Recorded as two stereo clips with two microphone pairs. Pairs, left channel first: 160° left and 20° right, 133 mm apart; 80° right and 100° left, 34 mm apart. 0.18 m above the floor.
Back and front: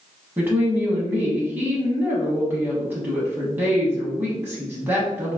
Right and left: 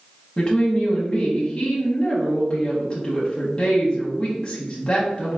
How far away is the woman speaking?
About 1.0 m.